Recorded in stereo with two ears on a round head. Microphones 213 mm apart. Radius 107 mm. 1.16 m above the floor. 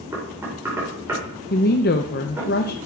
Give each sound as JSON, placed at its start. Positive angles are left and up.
{"t": 0.1, "sound": "knocking", "side_deg": -10, "distance_m": 4.5}
{"t": 1.5, "sound": "a woman speaking", "side_deg": 40, "distance_m": 0.6}